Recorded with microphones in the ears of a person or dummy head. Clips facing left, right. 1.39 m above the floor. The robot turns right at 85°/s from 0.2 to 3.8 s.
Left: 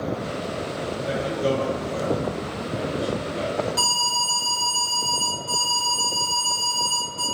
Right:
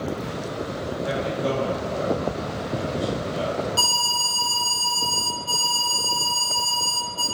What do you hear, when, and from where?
1.0 s a man speaking: 5° right, 0.7 m; by 3.7 s 145° right, 0.7 m
3.8 s an alarm: 5° right (ahead or behind), 0.6 m